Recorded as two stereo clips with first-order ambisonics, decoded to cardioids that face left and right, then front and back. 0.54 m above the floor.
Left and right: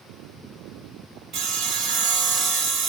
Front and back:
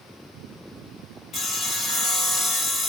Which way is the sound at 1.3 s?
55° right.